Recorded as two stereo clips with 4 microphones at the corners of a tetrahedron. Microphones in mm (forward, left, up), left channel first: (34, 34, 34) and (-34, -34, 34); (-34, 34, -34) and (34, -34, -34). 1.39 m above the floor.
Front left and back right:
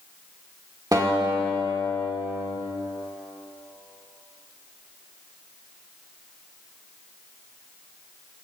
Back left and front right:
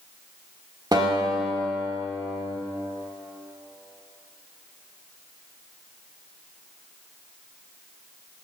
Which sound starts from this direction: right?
A guitar, at 0.9 s.